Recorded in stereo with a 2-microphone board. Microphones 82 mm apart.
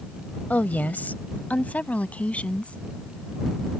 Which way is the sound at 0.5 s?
20° left (ahead or behind).